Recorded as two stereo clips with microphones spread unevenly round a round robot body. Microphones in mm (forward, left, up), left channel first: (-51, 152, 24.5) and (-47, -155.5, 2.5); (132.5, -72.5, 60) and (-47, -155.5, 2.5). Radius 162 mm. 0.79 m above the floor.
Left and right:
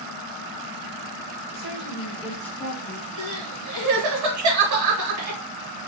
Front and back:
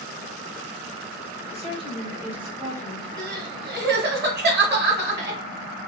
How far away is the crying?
About 1.1 m.